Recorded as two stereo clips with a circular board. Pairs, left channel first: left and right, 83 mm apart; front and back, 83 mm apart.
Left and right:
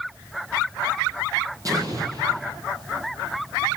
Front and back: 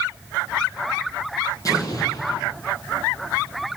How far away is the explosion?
About 9 m.